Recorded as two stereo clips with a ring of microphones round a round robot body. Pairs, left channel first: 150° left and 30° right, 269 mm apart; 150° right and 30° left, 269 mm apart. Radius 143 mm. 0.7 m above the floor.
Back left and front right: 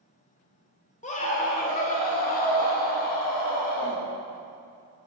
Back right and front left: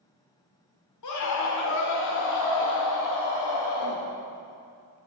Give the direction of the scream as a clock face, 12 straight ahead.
5 o'clock.